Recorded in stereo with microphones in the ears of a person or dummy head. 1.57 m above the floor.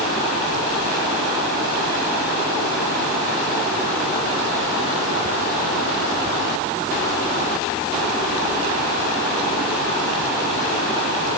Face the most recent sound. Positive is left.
No sound to turn to.